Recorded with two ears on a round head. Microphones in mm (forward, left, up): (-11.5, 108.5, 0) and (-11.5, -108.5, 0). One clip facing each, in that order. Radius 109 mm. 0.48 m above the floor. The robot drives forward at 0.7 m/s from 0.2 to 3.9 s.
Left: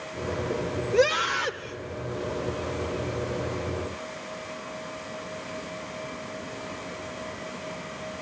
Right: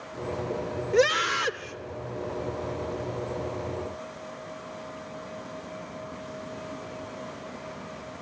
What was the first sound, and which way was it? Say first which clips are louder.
A scream: even; 25° right (ahead or behind).